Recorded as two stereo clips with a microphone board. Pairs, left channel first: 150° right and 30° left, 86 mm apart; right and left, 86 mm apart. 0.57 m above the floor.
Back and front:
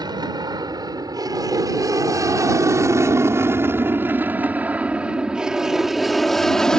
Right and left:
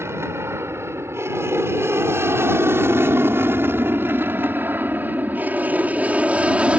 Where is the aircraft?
40° left; by 6.8 s 140° left.